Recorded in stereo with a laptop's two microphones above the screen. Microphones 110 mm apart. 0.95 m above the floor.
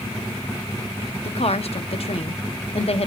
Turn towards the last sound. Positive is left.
turn(degrees=65)  # may be behind; listen again after turning